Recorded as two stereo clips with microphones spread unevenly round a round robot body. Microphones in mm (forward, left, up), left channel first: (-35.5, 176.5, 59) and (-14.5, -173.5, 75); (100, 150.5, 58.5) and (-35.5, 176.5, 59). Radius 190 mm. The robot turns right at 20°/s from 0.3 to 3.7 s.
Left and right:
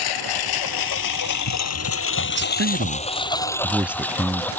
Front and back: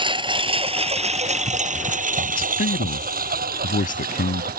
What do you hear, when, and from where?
0.0 s a lawn mower: 115° left; by 4.6 s straight behind
2.3 s a man speaking: 30° right; by 4.5 s straight ahead